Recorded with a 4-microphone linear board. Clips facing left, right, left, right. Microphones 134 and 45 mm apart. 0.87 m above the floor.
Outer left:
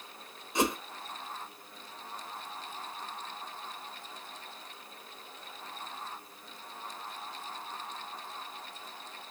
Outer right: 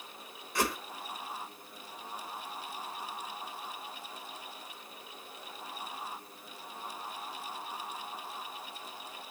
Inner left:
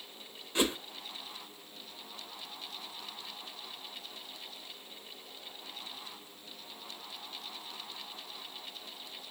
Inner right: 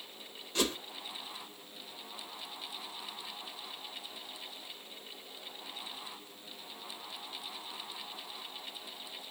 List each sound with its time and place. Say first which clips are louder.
0.6 s a whoosh: outer left 3 dB, inner left 2 dB; 20° left (ahead or behind), 1.0 m